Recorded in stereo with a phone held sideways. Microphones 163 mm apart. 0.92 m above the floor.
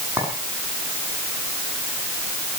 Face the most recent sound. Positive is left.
turn(degrees=-10)  # may be behind; listen again after turning